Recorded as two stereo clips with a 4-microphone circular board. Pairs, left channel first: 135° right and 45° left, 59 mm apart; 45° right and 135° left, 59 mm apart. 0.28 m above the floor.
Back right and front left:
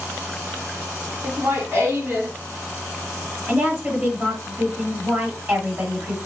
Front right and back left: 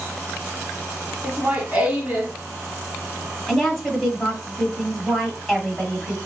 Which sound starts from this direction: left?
Laughter, at 1.2 s.